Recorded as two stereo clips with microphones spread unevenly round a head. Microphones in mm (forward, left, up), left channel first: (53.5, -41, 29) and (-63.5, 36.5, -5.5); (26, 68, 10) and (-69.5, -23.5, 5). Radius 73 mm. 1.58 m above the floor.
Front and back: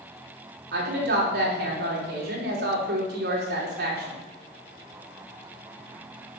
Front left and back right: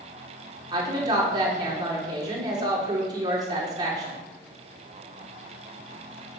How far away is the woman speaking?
About 4 m.